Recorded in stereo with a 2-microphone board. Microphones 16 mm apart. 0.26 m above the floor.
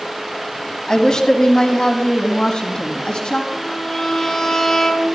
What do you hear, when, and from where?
0.9 s a woman speaking: 45° left (ahead or behind), 1.6 m; by 3.4 s 70° left (ahead or behind), 2.5 m
3.5 s a violin: 35° left (ahead or behind), 2.5 m